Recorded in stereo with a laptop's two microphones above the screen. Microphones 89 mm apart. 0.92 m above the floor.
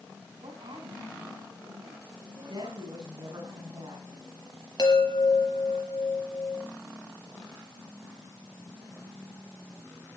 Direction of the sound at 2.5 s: 60° right (ahead or behind).